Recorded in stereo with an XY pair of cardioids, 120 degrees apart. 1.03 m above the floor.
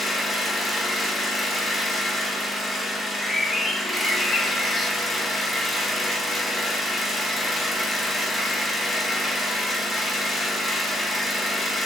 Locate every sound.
0.0 s an engine running: 10° left, 1.0 m
3.0 s a bird: 15° left, 0.7 m